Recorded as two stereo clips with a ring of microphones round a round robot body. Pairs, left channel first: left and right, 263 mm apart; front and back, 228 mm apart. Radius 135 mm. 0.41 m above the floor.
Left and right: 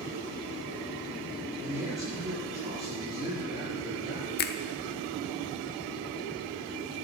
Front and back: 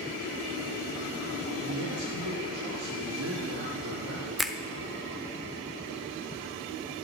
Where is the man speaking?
165° right, 6 m.